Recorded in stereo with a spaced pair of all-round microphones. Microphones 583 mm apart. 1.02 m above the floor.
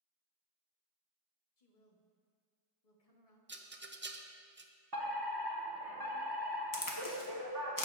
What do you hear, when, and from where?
1.6 s a woman speaking: 80° left, 1.3 m
3.5 s a rattle: 20° right (ahead or behind), 0.5 m
4.9 s a fire alarm: 40° right (ahead or behind), 1.3 m
6.7 s a crack: 35° left (ahead or behind), 1.0 m